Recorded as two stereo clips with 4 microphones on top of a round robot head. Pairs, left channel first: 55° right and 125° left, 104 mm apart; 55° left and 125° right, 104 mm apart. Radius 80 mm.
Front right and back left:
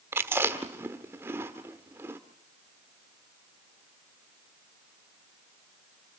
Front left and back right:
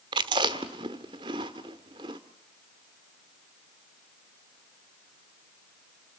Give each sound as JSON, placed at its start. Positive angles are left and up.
{"t": 0.1, "sound": "chewing", "azimuth_deg": -170, "distance_m": 1.1}